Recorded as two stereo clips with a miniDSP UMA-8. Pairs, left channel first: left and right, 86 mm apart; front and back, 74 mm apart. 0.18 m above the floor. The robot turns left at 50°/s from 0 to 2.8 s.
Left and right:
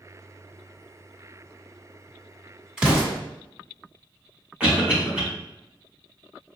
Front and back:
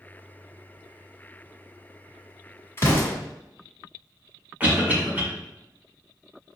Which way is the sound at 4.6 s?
145° right.